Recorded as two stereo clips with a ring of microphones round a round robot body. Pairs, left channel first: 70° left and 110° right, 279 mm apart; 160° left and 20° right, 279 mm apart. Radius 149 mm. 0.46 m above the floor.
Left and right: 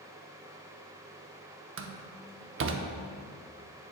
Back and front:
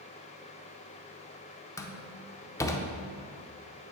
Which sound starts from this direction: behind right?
A door slam, at 1.8 s.